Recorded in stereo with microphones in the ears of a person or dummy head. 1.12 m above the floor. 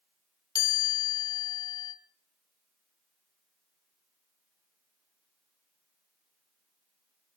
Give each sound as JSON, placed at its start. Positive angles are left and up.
{"t": 0.6, "sound": "a chime", "side_deg": 25, "distance_m": 1.9}